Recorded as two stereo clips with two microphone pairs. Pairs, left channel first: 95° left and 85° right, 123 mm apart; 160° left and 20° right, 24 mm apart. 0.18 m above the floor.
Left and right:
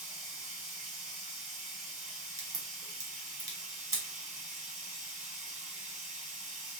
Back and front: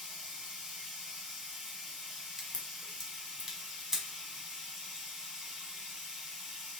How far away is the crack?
About 1.0 m.